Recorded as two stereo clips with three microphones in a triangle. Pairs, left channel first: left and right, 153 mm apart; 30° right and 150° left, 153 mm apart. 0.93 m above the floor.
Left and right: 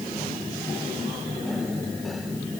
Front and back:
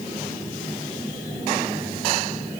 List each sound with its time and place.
Only background noise.